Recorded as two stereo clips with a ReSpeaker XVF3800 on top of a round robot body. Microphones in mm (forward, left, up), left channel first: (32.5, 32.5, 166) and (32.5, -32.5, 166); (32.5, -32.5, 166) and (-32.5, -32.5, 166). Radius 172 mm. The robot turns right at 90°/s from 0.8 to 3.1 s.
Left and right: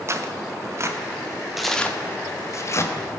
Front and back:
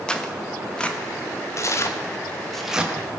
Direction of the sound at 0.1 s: 75° right.